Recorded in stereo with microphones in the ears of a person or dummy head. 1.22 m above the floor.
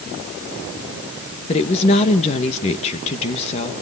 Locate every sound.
1.5 s a woman speaking: 30° left (ahead or behind), 1.5 m